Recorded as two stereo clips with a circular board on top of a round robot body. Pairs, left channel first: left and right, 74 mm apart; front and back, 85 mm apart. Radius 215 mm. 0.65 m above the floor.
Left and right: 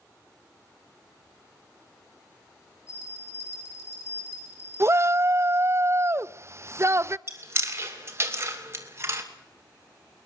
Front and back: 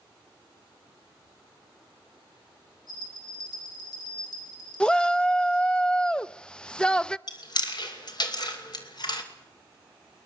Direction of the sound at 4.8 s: 75° right.